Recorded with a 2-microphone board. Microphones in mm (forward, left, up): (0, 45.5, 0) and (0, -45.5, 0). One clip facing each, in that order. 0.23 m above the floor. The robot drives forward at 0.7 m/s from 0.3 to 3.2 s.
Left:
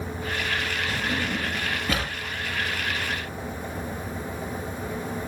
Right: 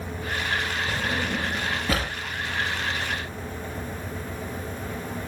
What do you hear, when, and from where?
0.9 s a drawer: 5° right (ahead or behind), 9 m